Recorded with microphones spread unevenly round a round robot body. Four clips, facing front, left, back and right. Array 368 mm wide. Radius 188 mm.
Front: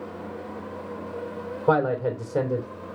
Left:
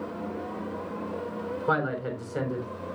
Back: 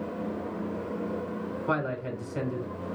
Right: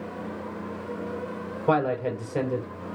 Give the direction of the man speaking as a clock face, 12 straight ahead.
1 o'clock.